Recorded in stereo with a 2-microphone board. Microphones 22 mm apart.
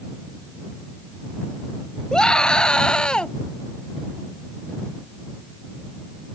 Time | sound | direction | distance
2.1 | a scream | 35° left (ahead or behind) | ?